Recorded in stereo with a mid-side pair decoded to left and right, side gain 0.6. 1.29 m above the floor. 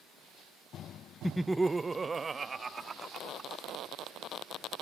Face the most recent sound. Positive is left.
turn(degrees=-30)